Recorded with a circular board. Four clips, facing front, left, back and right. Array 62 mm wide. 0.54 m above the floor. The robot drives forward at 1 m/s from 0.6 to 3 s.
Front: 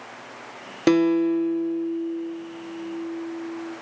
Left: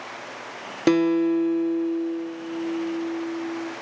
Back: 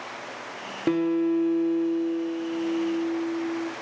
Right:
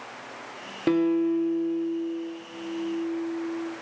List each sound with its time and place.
0.9 s a guitar: 35° left, 1.0 m; by 3.7 s 165° left, 1.8 m